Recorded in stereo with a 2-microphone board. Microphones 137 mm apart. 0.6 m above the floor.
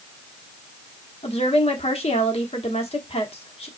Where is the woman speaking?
45° left (ahead or behind), 1.1 m.